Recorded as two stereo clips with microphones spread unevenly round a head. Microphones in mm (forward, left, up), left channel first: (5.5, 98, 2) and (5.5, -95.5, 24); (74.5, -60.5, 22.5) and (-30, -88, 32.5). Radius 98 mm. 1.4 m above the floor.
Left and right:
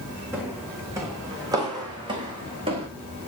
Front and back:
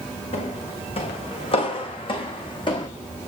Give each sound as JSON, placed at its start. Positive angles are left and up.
{"t": 0.3, "sound": "footsteps", "azimuth_deg": -10, "distance_m": 6.5}